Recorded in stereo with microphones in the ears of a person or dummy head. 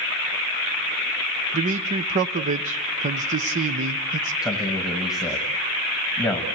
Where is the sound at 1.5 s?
35° right (ahead or behind), 0.6 m.